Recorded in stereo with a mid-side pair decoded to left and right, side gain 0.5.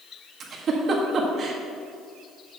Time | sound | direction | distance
0.4 | a giggle | 50° right | 1.5 m